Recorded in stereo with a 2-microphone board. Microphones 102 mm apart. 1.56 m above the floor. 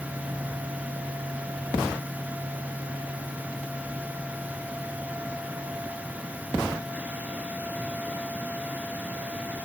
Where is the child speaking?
No child speaking in this recording.